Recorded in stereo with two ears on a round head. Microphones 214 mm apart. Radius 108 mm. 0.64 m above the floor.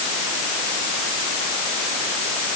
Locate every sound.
Only background noise.